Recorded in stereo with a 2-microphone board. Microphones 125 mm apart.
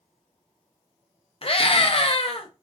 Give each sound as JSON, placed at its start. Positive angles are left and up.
{"t": 1.4, "sound": "a scream", "side_deg": 50, "distance_m": 0.7}